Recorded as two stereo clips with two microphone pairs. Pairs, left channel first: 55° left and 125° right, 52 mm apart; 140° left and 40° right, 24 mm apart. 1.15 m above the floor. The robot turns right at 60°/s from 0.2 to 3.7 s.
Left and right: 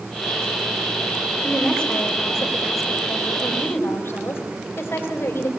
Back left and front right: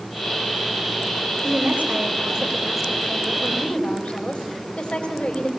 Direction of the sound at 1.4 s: 35° right.